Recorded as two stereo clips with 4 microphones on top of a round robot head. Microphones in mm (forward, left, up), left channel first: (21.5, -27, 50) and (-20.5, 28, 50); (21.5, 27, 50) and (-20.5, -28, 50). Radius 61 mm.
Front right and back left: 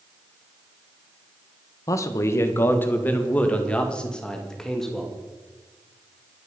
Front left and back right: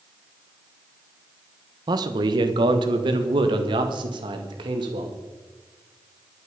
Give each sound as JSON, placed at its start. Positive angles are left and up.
{"t": 1.9, "sound": "a man speaking", "azimuth_deg": -95, "distance_m": 1.3}